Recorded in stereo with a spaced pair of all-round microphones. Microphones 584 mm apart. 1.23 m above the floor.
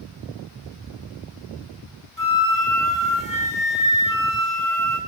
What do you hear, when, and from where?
2.2 s a flute: 30° left (ahead or behind), 2.5 m